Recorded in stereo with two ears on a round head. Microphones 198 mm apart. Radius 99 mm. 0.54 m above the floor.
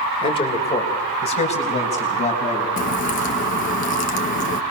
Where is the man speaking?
25° left (ahead or behind), 2 m; by 2.7 s 30° left (ahead or behind), 5.5 m.